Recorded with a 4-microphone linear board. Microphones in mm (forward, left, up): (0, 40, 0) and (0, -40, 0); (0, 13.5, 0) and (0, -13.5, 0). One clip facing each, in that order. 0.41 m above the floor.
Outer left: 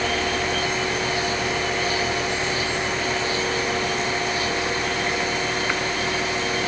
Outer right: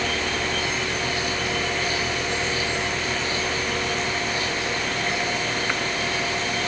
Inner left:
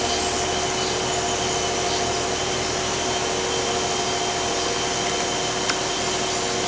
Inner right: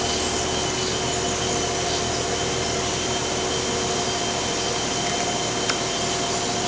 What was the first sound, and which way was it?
Only background noise.